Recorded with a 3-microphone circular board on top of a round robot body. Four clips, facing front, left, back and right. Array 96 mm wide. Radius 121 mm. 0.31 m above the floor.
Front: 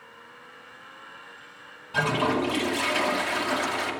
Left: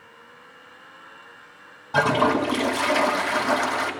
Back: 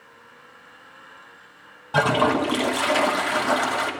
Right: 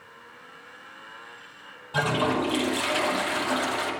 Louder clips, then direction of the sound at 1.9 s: Left 5 dB, back 5 dB; 150° left.